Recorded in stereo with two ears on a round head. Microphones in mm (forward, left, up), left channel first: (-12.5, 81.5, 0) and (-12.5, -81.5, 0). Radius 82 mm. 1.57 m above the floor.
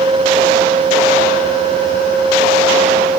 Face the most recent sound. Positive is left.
No sound to turn to.